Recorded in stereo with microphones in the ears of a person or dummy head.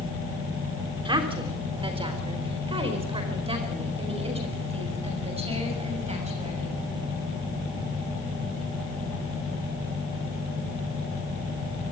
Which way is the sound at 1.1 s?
30° right (ahead or behind).